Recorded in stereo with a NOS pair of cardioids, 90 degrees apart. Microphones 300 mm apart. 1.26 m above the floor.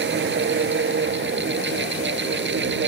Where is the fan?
35° right.